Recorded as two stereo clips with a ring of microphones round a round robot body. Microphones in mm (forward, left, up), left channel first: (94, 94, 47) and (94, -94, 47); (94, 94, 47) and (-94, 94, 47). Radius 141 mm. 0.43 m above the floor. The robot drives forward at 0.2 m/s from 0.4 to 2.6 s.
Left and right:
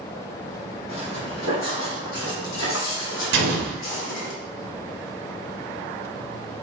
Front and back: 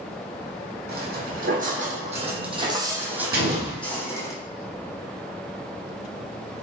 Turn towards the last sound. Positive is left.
turn(degrees=-120)